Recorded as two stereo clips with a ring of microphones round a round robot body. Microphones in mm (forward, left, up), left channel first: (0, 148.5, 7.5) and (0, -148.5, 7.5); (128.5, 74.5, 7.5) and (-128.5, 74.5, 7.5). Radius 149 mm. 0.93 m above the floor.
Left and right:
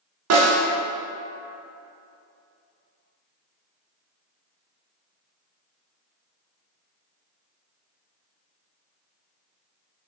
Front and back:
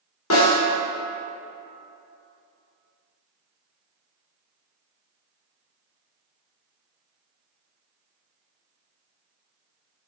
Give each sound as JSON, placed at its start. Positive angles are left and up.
{"t": 0.3, "sound": "a snare drum", "azimuth_deg": -50, "distance_m": 1.3}